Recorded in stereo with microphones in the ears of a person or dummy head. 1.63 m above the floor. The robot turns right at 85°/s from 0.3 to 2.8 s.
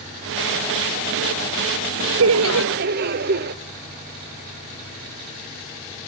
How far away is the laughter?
About 1.0 m.